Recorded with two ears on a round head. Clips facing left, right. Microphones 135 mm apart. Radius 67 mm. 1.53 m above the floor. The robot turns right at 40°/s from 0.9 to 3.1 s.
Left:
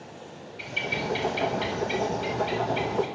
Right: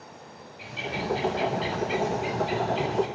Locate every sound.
0.6 s a bird: 85° left, 7.5 m; by 3.1 s 175° left, 7.5 m